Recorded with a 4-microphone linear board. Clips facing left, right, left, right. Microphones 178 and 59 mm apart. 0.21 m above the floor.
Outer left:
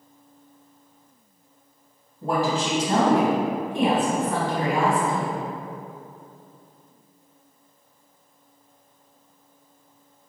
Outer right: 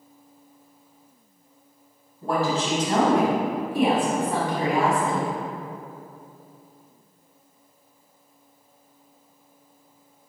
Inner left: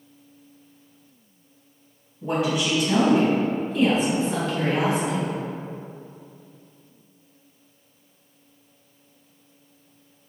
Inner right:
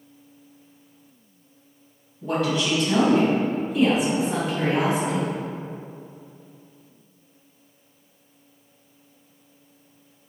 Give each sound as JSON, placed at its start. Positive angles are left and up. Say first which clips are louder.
{"t": 2.2, "sound": "a woman speaking", "louder": "even, even", "side_deg": 20, "distance_m": 1.3}